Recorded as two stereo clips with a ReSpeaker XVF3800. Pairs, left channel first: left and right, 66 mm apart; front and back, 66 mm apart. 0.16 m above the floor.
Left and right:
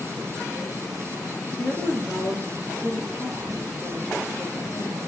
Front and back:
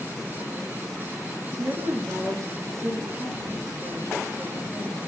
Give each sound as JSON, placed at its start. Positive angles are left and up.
{"t": 1.6, "sound": "a woman speaking", "azimuth_deg": 150, "distance_m": 2.5}